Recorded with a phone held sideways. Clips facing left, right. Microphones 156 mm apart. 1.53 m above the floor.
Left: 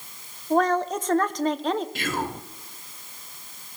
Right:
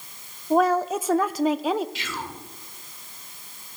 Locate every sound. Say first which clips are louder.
0.5 s a woman speaking: right 2 dB; 10° right (ahead or behind), 0.5 m
1.9 s whispering: left 6 dB; 50° left (ahead or behind), 0.6 m